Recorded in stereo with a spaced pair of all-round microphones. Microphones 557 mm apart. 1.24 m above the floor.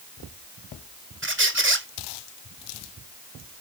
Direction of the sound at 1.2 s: 20° right (ahead or behind).